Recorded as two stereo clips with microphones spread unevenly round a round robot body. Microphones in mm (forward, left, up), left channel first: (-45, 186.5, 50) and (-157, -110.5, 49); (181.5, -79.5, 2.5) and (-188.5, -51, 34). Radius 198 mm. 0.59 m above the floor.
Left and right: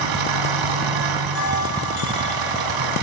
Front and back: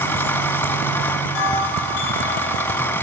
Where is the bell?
15° left, 5.5 m.